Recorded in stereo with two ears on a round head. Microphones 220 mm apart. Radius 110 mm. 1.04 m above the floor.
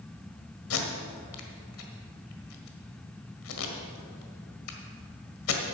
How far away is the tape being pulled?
About 1.7 m.